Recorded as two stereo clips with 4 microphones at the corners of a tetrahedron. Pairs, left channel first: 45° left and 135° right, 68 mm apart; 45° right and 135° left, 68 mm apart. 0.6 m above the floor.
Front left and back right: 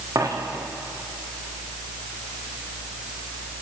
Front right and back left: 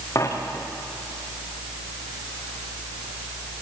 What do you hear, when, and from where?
0.1 s a dropped coin: 95° right, 5 m